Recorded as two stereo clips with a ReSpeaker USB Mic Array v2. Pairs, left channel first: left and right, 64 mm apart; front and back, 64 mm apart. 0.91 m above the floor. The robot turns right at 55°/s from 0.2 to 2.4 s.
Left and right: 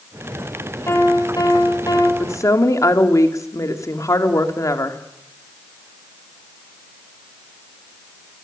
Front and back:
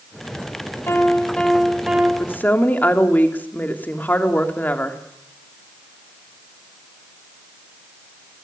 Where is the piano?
45° left, 4 m; by 2.1 s 115° left, 4 m.